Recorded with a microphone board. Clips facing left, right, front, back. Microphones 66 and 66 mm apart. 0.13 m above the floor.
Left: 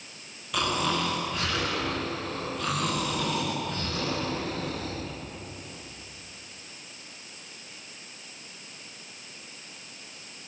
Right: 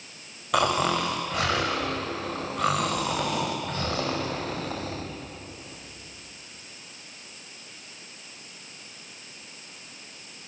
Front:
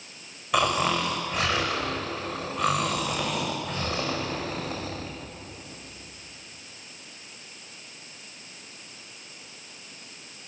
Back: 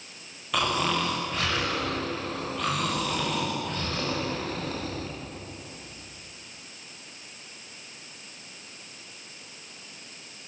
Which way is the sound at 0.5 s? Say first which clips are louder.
Right 4 dB, front 2 dB; 75° right.